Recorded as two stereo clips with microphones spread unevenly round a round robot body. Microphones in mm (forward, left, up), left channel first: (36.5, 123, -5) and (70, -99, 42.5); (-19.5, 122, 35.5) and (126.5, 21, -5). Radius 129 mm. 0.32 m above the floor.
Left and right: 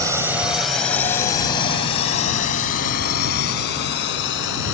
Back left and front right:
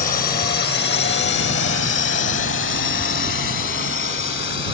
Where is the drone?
165° right; by 4.7 s 130° left.